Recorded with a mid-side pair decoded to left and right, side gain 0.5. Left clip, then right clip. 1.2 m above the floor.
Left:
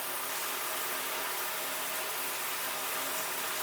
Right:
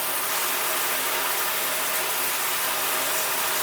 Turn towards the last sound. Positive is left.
turn(degrees=-60)